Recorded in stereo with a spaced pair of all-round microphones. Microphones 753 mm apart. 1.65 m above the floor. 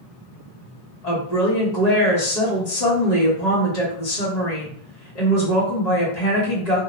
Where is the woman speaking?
60° left (ahead or behind), 1.3 m.